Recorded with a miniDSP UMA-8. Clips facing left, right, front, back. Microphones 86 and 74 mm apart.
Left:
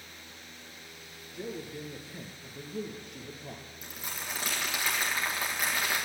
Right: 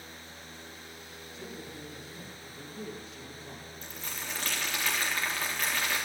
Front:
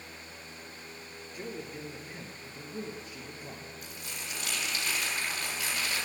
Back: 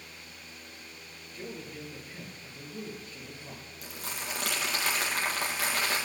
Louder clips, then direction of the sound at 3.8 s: Left 1 dB, back 3 dB; 170° left.